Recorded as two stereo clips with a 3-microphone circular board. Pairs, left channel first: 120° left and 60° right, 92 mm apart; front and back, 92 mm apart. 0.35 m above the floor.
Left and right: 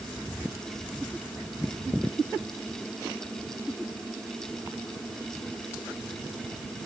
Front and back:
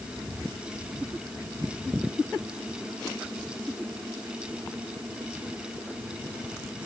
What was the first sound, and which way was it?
Only background noise.